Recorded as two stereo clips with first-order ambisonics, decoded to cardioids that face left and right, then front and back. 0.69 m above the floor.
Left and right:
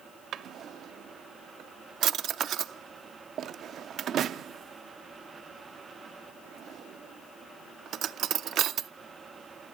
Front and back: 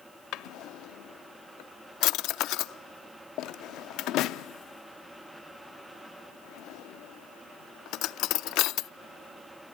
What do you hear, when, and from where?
0.3 s a drawer: 35° right, 0.5 m